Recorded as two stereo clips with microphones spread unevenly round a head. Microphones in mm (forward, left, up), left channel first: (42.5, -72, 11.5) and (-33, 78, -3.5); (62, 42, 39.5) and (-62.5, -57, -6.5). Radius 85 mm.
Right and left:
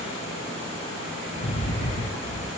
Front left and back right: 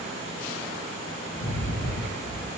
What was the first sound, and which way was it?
A rattle, 10° right.